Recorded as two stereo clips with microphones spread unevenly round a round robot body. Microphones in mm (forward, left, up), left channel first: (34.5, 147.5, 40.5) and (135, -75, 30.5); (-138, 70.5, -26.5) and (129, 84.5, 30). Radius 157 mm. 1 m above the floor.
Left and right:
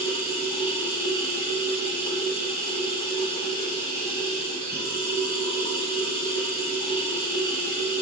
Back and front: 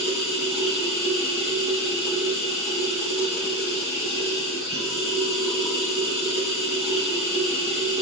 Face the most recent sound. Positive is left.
turn(degrees=-100)